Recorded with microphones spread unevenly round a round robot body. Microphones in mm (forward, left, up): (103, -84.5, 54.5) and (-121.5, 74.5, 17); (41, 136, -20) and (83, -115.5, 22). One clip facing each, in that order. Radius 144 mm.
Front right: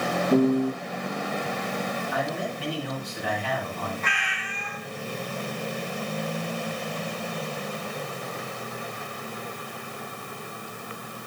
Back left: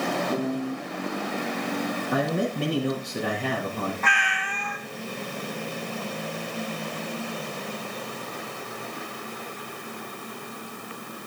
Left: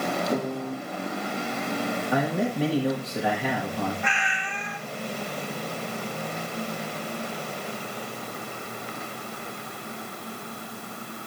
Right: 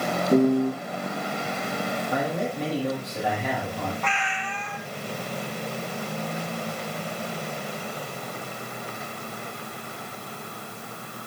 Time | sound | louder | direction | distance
0.3 | a piano | front right 11 dB, right 9 dB | 55° right | 6 m
2.1 | a man speaking | back left 5 dB, left 3 dB | 175° right | 7.5 m
4.0 | a cat meowing | back left 4 dB, right 1 dB | 175° left | 1.9 m